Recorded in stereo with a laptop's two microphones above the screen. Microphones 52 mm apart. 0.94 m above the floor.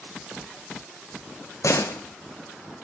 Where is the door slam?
70° left (ahead or behind), 0.8 m.